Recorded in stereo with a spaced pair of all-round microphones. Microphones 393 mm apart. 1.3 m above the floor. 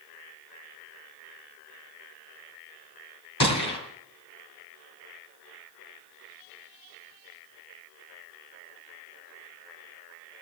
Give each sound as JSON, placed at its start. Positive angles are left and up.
{"t": 3.4, "sound": "a gunshot", "side_deg": 70, "distance_m": 3.0}